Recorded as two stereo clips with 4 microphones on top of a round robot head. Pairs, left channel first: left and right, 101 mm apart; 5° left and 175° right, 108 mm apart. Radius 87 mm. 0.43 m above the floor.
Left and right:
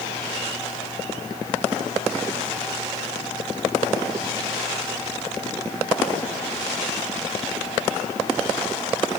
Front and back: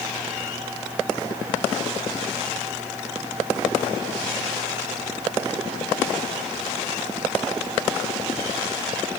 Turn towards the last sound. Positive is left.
No sound to turn to.